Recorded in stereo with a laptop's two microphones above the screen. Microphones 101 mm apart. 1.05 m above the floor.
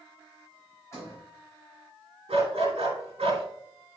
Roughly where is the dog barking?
Right.